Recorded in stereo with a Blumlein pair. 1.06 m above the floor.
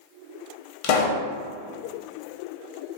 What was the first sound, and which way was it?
A pop, 45° left.